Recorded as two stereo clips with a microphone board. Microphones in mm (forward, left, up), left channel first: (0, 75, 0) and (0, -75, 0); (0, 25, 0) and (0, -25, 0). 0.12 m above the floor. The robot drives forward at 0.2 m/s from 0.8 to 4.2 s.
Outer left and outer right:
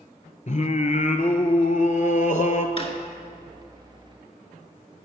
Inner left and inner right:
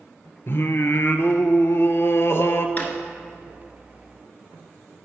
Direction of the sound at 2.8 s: 40° left (ahead or behind).